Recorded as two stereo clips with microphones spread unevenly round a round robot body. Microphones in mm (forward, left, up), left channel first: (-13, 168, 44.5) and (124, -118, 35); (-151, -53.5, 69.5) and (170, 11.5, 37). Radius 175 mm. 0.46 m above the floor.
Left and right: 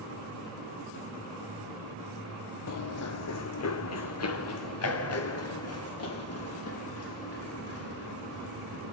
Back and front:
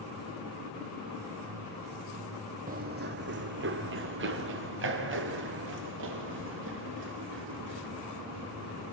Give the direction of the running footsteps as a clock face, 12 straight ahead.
9 o'clock.